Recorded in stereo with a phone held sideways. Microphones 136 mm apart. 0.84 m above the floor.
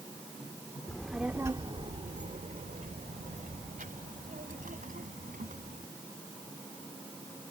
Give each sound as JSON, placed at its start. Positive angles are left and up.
{"t": 0.9, "sound": "a child speaking", "side_deg": 10}